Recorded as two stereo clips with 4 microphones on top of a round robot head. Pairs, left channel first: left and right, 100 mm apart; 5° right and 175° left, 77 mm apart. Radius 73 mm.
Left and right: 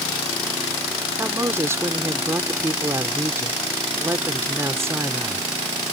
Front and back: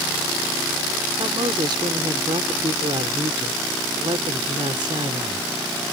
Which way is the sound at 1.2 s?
150° right.